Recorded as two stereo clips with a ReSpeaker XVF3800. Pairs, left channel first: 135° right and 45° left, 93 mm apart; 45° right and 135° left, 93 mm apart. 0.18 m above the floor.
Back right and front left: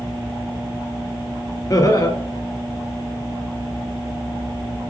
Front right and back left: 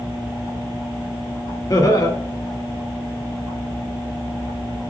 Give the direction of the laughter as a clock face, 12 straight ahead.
3 o'clock.